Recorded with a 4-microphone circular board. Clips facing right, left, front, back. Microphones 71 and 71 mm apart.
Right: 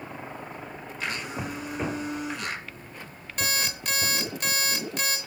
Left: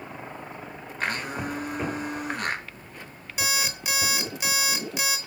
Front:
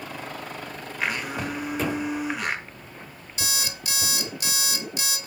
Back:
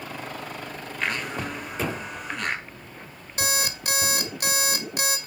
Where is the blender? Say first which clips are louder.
Left 3 dB, front 1 dB; 80° left, 0.7 m.